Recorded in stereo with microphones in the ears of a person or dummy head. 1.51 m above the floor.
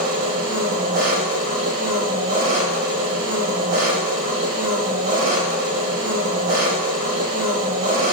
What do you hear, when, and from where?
0.0 s an engine running: 45° right (ahead or behind), 3 m